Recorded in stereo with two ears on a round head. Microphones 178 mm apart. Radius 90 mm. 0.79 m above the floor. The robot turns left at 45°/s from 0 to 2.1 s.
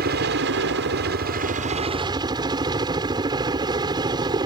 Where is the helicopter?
60° right; by 4.5 s 155° right.